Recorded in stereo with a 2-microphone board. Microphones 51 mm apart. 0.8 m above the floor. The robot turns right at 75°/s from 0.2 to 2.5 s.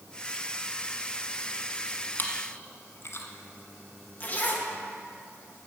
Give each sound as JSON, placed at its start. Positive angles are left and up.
{"t": 2.2, "sound": "chewing", "side_deg": 40, "distance_m": 1.1}
{"t": 4.2, "sound": "a zipper", "side_deg": 30, "distance_m": 1.1}